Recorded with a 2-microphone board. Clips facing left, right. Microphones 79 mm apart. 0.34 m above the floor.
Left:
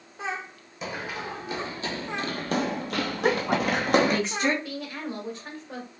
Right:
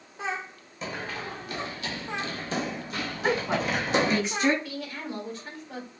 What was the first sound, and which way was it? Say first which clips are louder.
Running footsteps: left 1 dB; 10° left (ahead or behind).